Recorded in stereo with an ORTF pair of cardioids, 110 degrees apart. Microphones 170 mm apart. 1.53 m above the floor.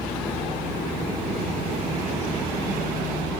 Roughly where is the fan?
Ahead.